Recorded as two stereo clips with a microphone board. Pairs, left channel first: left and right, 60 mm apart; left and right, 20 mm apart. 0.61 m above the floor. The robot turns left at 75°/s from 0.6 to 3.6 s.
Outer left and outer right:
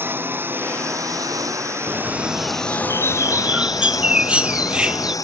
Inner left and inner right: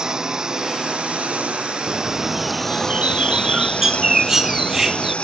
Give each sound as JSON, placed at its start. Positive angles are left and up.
{"t": 0.0, "sound": "a lawn mower", "azimuth_deg": -40}
{"t": 1.9, "sound": "a bird", "azimuth_deg": -30}